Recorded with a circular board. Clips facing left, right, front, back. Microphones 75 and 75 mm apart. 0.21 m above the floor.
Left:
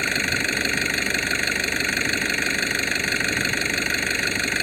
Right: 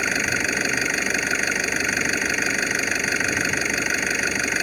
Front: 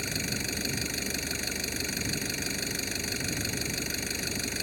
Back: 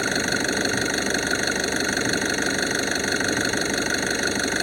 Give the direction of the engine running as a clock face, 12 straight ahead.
6 o'clock.